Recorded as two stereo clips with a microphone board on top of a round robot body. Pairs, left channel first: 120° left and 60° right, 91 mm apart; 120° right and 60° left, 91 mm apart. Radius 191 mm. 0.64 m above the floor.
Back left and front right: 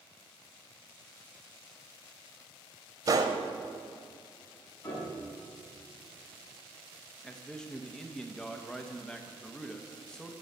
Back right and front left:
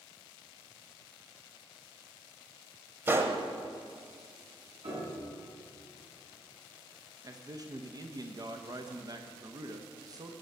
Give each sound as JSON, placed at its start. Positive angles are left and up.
{"t": 3.1, "sound": "a gunshot", "azimuth_deg": -10, "distance_m": 0.9}
{"t": 4.8, "sound": "a piano", "azimuth_deg": 55, "distance_m": 7.0}
{"t": 7.2, "sound": "a man speaking", "azimuth_deg": 40, "distance_m": 1.2}